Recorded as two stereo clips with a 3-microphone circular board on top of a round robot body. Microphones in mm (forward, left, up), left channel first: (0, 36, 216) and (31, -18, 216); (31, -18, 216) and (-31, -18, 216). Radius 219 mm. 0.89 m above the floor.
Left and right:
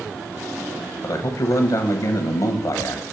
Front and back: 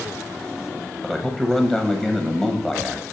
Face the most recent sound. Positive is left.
turn(degrees=90)